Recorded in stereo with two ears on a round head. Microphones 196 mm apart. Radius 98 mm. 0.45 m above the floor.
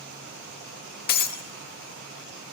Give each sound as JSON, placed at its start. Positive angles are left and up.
{"t": 1.1, "sound": "breaking glass", "side_deg": 45, "distance_m": 0.7}